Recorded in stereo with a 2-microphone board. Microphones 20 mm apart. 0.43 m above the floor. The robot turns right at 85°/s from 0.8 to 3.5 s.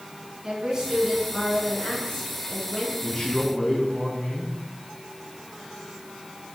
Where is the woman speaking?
25° right, 4 m; by 2.9 s 155° left, 4 m.